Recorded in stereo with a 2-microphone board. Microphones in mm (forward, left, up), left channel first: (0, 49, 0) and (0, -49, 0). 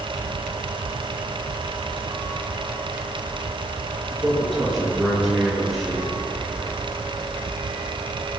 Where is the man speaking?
Centre (ahead or behind), 5.5 m.